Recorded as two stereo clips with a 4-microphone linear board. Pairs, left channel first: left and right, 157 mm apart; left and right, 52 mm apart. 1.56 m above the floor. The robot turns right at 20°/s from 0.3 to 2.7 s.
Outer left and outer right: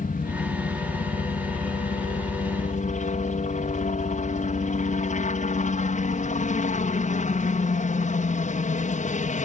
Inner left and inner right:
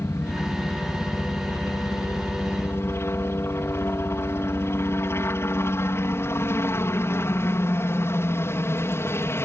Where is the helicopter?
70° left; by 9.5 s 120° left.